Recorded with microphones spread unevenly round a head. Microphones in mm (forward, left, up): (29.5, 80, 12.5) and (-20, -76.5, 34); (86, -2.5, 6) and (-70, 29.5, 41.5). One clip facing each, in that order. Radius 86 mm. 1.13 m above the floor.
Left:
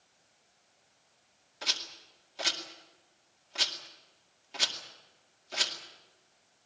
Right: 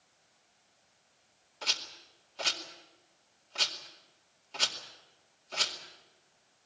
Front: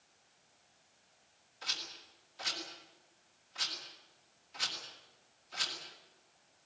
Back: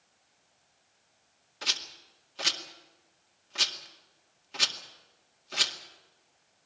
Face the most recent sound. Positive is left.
turn(degrees=155)